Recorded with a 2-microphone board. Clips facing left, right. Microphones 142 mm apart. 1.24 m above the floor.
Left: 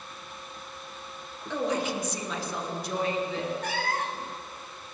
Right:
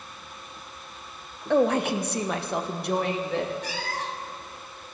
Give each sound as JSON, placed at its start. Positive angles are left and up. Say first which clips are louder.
{"t": 1.5, "sound": "a woman speaking", "louder": "right 7 dB", "side_deg": -65, "distance_m": 1.0}
{"t": 3.6, "sound": "a cat meowing", "louder": "left 2 dB", "side_deg": 60, "distance_m": 1.0}